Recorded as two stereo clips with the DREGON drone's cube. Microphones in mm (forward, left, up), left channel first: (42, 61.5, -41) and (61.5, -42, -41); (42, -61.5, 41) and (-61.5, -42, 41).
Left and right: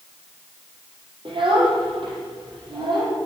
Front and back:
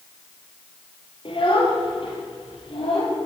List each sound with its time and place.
1.2 s a child speaking: 45° right, 5 m; by 3.2 s 35° right, 5.5 m